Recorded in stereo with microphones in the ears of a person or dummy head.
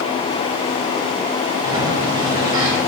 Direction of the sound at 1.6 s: 20° right (ahead or behind).